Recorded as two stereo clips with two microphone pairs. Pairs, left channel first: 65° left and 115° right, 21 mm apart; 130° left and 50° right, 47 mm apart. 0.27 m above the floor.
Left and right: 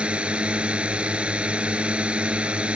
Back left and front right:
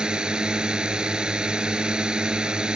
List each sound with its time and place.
0.0 s a drone: 120° right